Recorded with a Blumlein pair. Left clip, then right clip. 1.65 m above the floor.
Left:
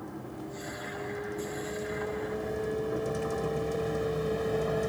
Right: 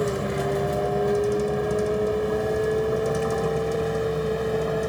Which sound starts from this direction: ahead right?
A vehicle, at 0.0 s.